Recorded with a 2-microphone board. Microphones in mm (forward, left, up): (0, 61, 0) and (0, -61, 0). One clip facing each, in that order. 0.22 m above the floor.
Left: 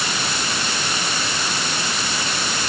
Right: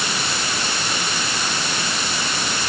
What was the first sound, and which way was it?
Only background noise.